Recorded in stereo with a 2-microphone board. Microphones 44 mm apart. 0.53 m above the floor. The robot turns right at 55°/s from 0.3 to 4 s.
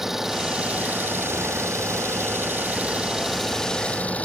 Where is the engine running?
175° right; by 4.3 s 30° left.